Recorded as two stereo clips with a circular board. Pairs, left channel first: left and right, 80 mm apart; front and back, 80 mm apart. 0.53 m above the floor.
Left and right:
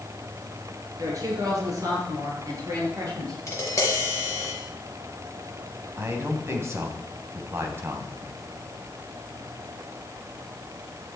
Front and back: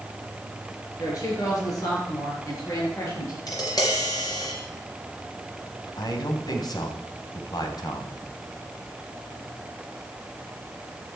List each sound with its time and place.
1.0 s a woman speaking: 45° right, 7 m
3.5 s tapping: 35° left, 4.5 m
6.0 s a man speaking: 35° right, 3.5 m